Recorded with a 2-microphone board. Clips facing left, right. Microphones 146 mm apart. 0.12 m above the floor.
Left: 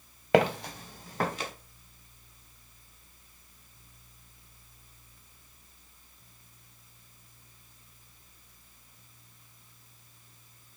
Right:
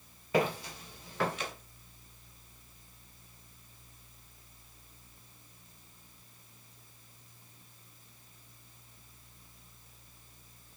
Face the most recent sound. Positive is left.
turn(degrees=35)  # may be behind; listen again after turning